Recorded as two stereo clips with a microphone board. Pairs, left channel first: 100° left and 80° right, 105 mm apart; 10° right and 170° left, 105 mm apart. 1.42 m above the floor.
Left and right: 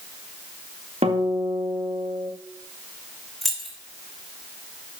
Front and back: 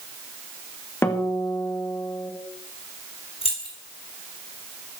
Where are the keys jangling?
10° left, 2.5 m.